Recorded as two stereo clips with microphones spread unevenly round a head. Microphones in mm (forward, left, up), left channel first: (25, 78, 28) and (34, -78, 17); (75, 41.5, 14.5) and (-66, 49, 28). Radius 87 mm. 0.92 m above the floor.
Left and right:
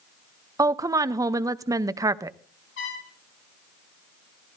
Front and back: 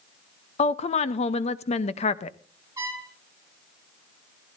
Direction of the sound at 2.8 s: 105° left.